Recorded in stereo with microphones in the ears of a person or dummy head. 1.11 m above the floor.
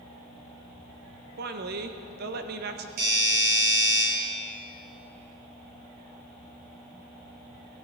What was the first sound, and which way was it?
A woman speaking, 45° right (ahead or behind).